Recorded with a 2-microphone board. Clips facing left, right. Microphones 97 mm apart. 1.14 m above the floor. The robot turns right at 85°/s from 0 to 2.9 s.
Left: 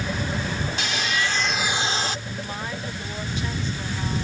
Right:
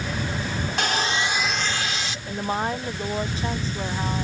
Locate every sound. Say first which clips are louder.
0.8 s sawing: right 5 dB; 60° right; by 2.2 s 55° left
2.3 s a woman speaking: right 6 dB; 115° right; by 4.2 s 60° right